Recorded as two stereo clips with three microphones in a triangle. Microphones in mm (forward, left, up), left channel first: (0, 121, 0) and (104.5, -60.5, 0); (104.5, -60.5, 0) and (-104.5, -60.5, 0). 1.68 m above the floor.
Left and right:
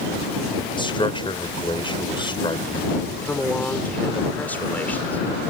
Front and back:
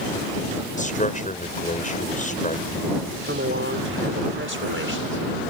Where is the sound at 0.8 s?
55° left.